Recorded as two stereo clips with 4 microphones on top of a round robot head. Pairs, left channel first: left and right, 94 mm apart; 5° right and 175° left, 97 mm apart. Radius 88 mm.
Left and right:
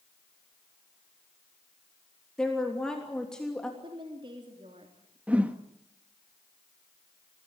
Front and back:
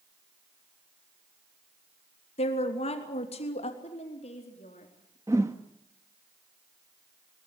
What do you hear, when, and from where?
2.4 s a woman speaking: 5° left, 3 m
3.8 s a woman speaking: 40° right, 3 m
5.3 s a whoosh: 150° right, 1.1 m